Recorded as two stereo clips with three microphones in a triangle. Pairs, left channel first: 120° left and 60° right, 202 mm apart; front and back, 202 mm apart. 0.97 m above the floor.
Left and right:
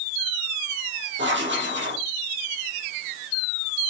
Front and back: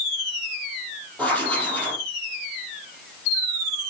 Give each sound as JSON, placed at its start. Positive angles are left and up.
{"t": 1.2, "sound": "writing", "azimuth_deg": -80, "distance_m": 5.0}